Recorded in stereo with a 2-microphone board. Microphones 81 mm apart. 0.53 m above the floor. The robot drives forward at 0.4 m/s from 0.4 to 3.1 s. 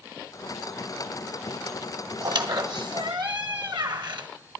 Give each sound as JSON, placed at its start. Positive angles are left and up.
{"t": 2.2, "sound": "a squeak", "side_deg": -65, "distance_m": 1.5}